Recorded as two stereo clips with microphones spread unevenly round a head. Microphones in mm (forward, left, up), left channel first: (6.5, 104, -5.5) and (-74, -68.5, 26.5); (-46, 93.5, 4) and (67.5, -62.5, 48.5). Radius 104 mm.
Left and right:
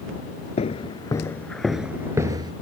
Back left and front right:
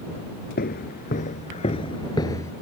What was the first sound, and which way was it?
Footsteps, 110° left.